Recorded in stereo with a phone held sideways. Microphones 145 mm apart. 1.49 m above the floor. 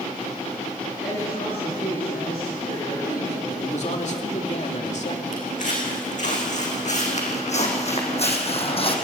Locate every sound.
1.0 s a woman speaking: 85° left, 9.5 m
3.5 s a man speaking: 50° left (ahead or behind), 2.5 m
5.3 s footsteps: 60° left (ahead or behind), 5.5 m; by 8.9 s 40° left (ahead or behind), 3 m